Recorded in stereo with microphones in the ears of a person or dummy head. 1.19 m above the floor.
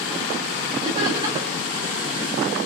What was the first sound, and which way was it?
Laughter, 20° right (ahead or behind).